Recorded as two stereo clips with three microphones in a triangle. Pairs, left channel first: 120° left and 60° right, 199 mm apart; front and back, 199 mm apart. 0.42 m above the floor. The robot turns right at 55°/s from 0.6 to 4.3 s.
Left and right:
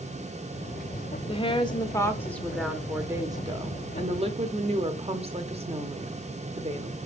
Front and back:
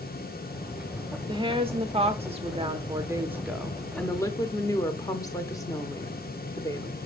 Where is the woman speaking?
140° left, 0.8 m; by 7.0 s 55° right, 0.8 m.